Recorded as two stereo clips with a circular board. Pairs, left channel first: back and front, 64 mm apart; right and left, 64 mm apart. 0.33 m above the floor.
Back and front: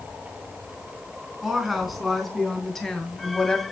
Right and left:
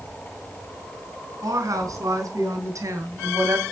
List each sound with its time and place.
1.4 s a woman speaking: 85° left, 4.5 m; by 3.6 s 110° left, 2.5 m